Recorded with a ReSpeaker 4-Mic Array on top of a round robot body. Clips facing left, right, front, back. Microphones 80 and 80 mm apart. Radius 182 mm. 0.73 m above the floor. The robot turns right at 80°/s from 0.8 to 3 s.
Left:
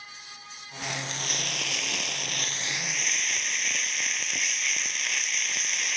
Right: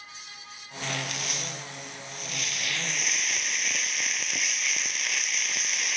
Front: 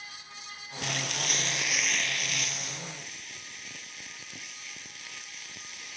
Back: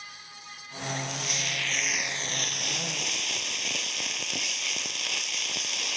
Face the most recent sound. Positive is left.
turn(degrees=180)